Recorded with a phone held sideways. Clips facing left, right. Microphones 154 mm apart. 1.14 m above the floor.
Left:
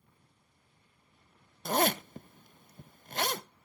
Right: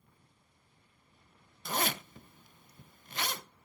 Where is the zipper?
45° left (ahead or behind), 0.5 m.